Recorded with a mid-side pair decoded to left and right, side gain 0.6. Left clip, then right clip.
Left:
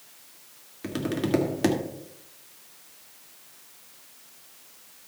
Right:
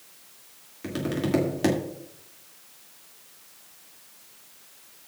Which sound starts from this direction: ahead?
Tapping, at 0.8 s.